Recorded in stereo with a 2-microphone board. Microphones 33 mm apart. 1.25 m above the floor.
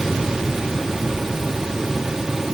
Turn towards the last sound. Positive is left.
No sound to turn to.